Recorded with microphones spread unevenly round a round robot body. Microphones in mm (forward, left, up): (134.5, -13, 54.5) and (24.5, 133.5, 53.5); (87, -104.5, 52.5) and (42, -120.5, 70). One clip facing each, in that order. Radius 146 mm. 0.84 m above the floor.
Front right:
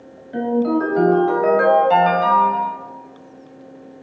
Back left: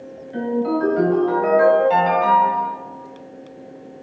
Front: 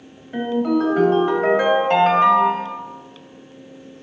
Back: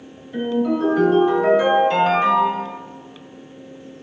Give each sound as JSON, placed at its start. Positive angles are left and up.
{"t": 0.3, "sound": "a ringtone", "azimuth_deg": -15, "distance_m": 0.9}